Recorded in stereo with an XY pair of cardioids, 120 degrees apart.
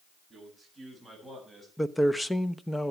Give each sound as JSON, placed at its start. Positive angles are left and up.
{"t": 0.3, "sound": "a man speaking", "azimuth_deg": 5, "distance_m": 7.5}
{"t": 1.8, "sound": "a man speaking", "azimuth_deg": 10, "distance_m": 0.8}